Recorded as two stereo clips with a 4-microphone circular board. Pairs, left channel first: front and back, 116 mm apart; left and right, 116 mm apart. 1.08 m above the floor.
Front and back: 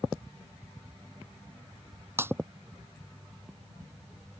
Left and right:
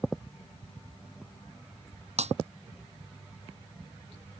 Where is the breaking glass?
110° right.